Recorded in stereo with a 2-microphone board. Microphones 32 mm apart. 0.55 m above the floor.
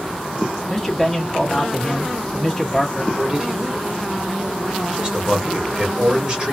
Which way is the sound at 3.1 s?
30° right (ahead or behind).